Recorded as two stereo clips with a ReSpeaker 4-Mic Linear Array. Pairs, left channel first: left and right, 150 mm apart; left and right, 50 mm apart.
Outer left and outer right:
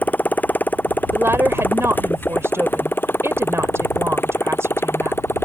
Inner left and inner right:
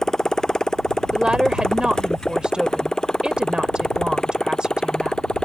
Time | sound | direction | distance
0.0 | a motorcycle | 10° left (ahead or behind) | ?
1.1 | a woman speaking | 20° right (ahead or behind) | ?